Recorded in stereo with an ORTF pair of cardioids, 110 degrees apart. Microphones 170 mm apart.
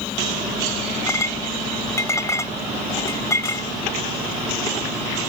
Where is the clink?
15° left.